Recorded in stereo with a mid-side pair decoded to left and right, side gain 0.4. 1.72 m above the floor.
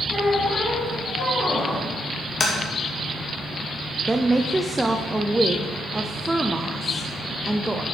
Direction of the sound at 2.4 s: 55° left.